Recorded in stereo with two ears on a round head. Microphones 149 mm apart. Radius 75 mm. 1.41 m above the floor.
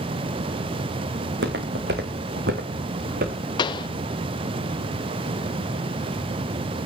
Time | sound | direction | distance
1.2 | footsteps | 70° right (ahead or behind) | 4.5 m
3.6 | a pop | 25° left (ahead or behind) | 0.6 m